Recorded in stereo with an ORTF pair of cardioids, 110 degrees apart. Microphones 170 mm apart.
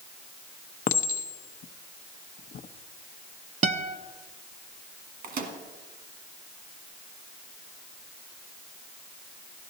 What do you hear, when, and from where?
0.9 s a clink: 50° left, 0.7 m
3.6 s a guitar: 45° right, 0.6 m
5.2 s a microwave: 60° right, 1.6 m